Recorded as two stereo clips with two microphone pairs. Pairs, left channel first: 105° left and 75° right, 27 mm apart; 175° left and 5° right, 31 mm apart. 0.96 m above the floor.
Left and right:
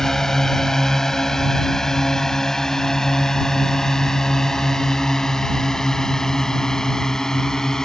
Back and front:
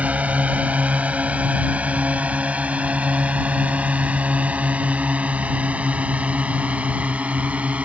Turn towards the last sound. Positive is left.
turn(degrees=40)